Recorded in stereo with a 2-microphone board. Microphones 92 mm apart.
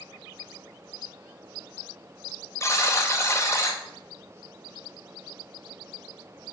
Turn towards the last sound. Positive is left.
turn(degrees=35)  # may be behind; listen again after turning